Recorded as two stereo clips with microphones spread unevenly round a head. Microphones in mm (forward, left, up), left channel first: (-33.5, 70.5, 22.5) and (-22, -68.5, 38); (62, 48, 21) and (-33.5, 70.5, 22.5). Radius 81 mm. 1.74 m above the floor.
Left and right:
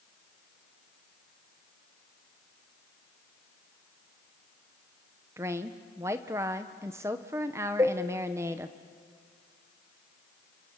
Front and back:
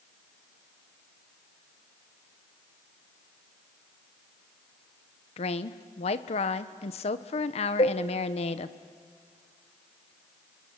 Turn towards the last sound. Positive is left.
turn(degrees=-25)